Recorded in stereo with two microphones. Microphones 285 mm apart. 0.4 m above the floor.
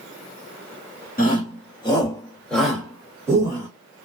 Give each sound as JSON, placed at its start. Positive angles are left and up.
{"t": 1.2, "sound": "a shout", "side_deg": 30, "distance_m": 1.3}